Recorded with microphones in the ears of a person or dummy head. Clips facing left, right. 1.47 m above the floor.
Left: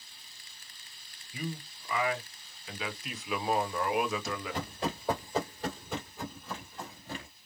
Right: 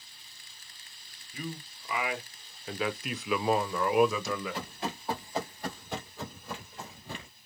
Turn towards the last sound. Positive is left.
turn(degrees=-20)  # may be behind; listen again after turning